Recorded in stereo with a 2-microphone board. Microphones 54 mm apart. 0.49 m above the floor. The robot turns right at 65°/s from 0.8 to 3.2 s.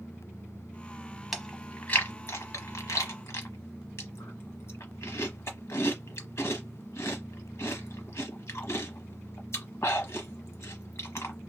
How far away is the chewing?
About 1.0 m.